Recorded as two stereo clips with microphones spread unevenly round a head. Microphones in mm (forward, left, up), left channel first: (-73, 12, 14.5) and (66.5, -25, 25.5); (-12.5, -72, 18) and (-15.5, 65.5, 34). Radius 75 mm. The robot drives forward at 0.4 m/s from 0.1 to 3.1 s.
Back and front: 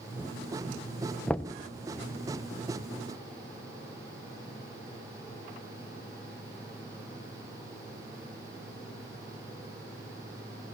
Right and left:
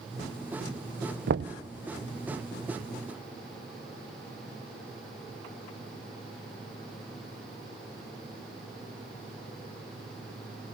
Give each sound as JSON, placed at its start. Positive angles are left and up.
{"t": 1.3, "sound": "knocking", "azimuth_deg": 80, "distance_m": 0.7}